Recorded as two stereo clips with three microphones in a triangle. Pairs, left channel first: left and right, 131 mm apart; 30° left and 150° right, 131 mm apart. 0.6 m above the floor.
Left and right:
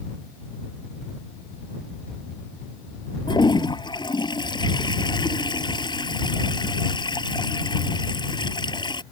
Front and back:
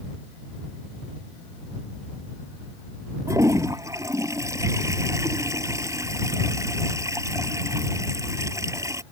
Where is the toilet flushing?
145° left.